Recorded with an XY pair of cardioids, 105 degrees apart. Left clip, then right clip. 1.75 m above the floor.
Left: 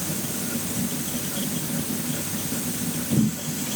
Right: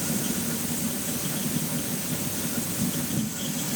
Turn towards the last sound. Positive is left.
No sound to turn to.